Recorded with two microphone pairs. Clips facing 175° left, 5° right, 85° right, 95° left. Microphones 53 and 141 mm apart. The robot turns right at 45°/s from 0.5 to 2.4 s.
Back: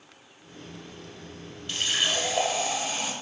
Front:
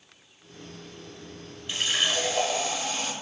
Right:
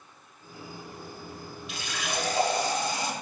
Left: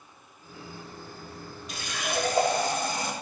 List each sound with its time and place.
1.7 s a running tap: 65° left, 0.8 m; by 3.1 s 100° left, 0.8 m